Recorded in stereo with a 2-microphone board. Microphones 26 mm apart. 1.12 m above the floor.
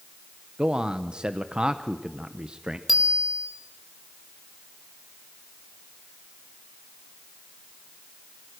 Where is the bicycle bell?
10° right (ahead or behind), 3.5 m.